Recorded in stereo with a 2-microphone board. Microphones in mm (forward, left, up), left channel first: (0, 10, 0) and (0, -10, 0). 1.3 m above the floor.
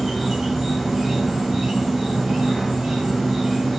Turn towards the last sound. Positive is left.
turn(degrees=-30)  # may be behind; listen again after turning